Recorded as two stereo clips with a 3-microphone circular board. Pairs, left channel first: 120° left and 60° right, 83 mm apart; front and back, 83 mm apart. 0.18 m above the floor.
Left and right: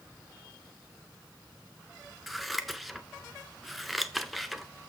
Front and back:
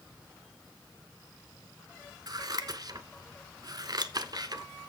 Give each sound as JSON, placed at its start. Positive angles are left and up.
{"t": 2.3, "sound": "scissors", "azimuth_deg": -150, "distance_m": 0.7}